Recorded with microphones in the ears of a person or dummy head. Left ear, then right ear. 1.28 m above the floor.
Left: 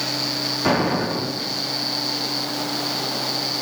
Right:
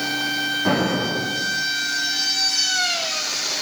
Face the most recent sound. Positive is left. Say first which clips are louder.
# left 4 dB
turn(degrees=80)